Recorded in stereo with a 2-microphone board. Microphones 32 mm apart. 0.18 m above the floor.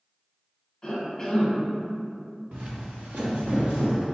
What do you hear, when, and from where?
0.8 s a cough: 25° left (ahead or behind), 1.0 m
2.5 s footsteps: 45° right (ahead or behind), 0.8 m; by 4.0 s 85° right, 1.5 m